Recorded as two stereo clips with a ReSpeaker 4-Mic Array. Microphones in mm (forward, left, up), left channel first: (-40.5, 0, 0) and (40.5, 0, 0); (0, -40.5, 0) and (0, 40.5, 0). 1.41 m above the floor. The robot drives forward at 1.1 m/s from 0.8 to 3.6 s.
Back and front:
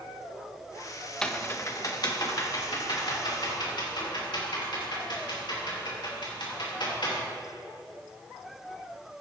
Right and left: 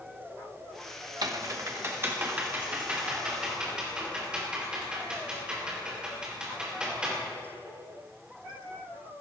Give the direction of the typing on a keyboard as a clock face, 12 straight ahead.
9 o'clock.